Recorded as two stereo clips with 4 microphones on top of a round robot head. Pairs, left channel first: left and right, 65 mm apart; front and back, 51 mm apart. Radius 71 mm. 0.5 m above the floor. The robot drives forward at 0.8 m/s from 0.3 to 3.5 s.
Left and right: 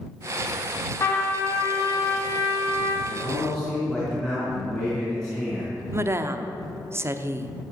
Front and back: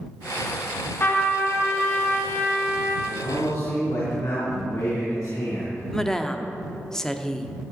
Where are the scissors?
No scissors in this recording.